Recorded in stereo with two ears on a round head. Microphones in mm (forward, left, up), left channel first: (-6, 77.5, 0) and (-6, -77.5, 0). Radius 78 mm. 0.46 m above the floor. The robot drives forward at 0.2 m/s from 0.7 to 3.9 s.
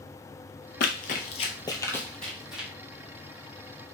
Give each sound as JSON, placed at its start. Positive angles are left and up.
{"t": 0.8, "sound": "running footsteps", "side_deg": 55, "distance_m": 0.7}